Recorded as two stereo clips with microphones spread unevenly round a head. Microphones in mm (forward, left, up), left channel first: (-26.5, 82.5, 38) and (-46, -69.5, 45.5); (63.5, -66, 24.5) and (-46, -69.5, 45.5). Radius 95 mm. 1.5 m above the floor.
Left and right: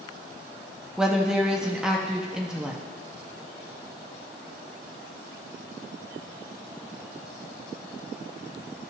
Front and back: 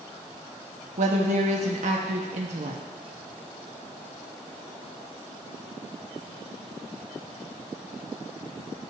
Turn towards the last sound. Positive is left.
turn(degrees=180)